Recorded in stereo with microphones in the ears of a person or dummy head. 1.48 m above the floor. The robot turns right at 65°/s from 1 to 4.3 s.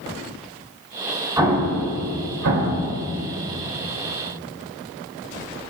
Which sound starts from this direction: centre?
An explosion, at 1.4 s.